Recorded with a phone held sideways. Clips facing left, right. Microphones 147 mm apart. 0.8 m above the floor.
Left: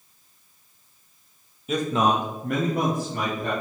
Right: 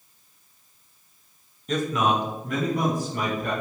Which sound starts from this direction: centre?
A man speaking, at 1.7 s.